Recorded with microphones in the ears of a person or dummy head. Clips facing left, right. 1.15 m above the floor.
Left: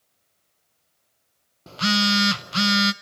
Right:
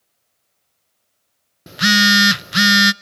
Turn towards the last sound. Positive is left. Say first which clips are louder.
# right 5 dB
turn(degrees=-15)  # may be behind; listen again after turning